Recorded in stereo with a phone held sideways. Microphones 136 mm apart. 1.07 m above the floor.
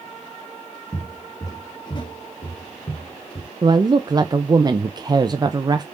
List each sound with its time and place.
0.9 s footsteps: 15° left (ahead or behind), 1.8 m; by 3.5 s 55° left (ahead or behind), 2 m
3.6 s a woman speaking: 30° right (ahead or behind), 0.5 m